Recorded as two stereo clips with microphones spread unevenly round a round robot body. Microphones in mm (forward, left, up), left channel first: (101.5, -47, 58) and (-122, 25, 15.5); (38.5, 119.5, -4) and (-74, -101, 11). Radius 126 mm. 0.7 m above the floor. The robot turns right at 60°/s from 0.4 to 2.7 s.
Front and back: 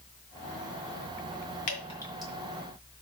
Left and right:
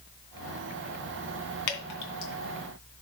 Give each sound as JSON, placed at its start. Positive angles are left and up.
{"t": 1.7, "sound": "dripping", "azimuth_deg": 40, "distance_m": 2.5}